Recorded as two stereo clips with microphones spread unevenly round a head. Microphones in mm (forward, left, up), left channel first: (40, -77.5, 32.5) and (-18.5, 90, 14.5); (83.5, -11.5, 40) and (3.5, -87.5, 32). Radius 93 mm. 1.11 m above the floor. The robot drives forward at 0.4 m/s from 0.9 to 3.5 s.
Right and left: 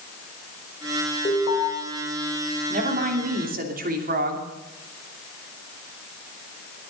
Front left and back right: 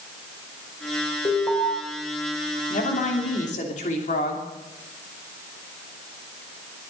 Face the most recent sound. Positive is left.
turn(degrees=70)